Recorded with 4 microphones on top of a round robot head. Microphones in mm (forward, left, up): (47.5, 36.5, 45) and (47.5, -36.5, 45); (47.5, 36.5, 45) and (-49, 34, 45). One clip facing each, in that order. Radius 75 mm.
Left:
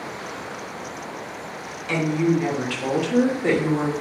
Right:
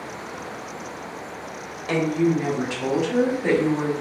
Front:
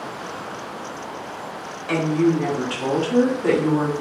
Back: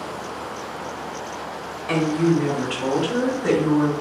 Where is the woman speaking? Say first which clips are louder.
Even, even; 85° right, 1.5 m; by 3.9 s 15° left, 1.8 m.